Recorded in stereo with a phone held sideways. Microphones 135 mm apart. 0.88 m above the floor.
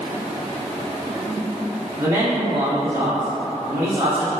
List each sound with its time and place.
2.0 s a man speaking: 35° right (ahead or behind), 0.9 m